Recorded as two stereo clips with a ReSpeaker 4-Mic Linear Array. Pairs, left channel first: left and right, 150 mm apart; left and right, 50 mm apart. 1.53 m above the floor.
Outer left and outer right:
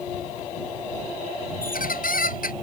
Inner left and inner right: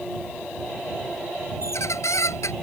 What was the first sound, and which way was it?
A squeak, 85° left.